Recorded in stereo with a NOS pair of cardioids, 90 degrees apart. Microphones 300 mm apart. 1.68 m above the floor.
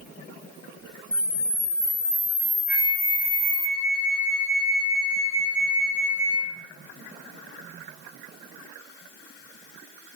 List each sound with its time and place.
1.1 s a camera shutter: 10° left, 0.6 m
2.7 s a flute: 20° left, 2.5 m